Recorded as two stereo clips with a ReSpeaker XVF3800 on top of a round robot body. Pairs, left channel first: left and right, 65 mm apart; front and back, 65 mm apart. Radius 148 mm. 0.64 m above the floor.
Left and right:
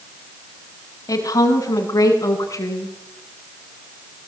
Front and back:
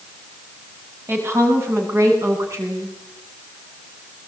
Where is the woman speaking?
125° left, 6 m; by 2.9 s 135° left, 8 m.